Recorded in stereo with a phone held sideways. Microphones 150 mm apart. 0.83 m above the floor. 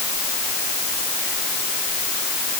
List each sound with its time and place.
Only background noise.